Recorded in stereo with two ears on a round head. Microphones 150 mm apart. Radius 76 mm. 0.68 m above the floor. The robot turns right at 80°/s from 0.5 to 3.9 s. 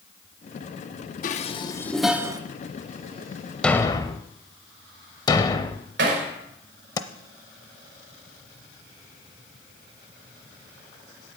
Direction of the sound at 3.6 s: 5° left (ahead or behind).